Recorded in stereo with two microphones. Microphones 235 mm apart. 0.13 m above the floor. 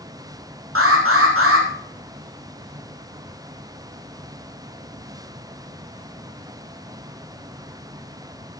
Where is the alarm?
70° right (ahead or behind), 6 m.